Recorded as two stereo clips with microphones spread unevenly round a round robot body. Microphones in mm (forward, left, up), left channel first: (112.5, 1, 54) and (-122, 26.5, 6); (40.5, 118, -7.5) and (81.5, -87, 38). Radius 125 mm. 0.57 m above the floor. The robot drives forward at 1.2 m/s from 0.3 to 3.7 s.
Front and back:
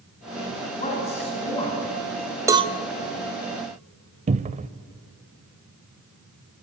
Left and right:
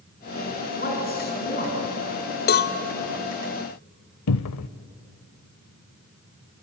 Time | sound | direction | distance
0.8 | a man speaking | 55° left | 8 m
2.5 | a cowbell | 105° left | 0.9 m
4.3 | a cupboard door | 110° left | 0.6 m